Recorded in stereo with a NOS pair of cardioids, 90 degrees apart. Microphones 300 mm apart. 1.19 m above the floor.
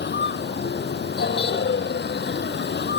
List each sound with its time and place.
0.0 s a vehicle: 35° left